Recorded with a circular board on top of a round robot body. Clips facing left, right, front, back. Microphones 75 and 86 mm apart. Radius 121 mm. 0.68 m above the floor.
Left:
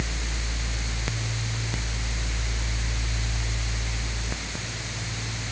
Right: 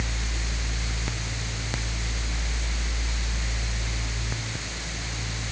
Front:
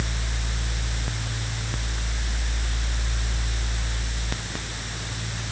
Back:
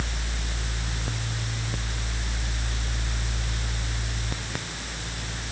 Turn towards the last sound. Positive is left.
No sound to turn to.